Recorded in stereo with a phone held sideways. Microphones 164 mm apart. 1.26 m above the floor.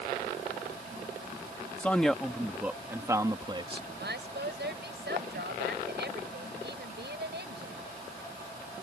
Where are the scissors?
I don't hear scissors.